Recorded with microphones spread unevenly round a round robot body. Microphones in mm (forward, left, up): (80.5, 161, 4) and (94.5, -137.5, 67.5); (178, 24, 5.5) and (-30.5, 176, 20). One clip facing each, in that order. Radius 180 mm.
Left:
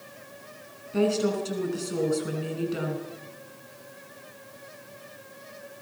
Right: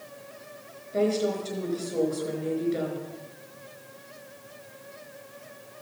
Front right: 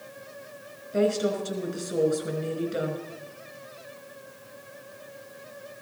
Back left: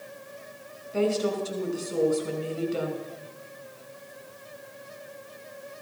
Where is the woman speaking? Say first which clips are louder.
Left 1 dB, front right 1 dB; 40° left, 4.5 m.